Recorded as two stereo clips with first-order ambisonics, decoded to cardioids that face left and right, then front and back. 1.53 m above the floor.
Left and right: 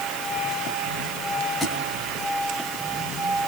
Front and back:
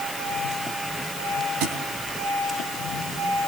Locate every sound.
1.6 s a thud: 175° left, 3.5 m